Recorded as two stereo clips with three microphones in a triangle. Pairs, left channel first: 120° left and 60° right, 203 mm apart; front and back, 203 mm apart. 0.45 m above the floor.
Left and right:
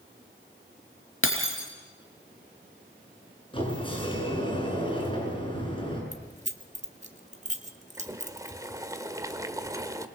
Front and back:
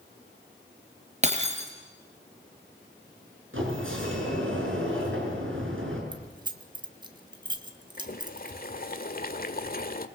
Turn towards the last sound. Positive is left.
turn(degrees=10)